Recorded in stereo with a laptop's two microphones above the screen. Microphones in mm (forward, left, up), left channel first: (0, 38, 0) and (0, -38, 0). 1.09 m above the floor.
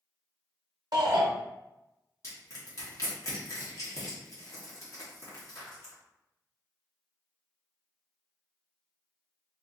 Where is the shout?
60° right (ahead or behind), 0.6 m.